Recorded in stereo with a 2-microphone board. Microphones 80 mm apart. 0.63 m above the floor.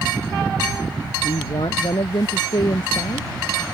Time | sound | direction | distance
1.2 | a woman speaking | 75° left (ahead or behind) | ?